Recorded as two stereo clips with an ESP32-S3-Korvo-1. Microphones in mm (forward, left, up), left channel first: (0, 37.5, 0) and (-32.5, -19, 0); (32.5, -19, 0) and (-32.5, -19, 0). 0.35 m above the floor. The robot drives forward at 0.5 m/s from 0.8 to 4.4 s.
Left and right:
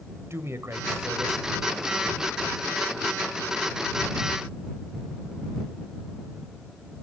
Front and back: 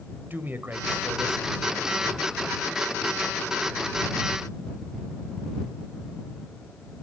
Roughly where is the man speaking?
Behind right.